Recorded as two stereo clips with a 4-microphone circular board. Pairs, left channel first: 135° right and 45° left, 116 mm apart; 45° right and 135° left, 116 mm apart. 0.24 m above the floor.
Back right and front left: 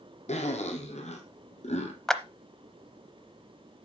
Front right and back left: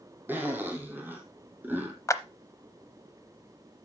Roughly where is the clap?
Ahead right.